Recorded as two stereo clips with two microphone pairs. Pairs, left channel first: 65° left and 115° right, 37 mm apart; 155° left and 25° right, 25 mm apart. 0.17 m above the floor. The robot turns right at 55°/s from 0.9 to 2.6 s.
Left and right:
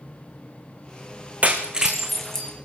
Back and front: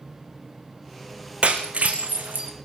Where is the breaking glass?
65° right, 3 m; by 2.5 s 5° right, 3 m.